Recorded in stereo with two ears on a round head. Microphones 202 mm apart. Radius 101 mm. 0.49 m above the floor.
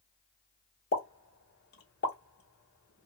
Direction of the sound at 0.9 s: 45° left (ahead or behind).